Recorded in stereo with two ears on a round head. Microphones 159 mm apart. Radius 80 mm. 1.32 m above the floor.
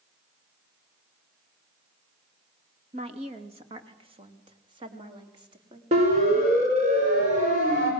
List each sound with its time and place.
2.9 s a woman speaking: 40° right (ahead or behind), 2 m; by 5.8 s 30° right (ahead or behind), 3.5 m
5.9 s a siren: 35° right (ahead or behind), 6 m; by 7.9 s 50° right (ahead or behind), 5.5 m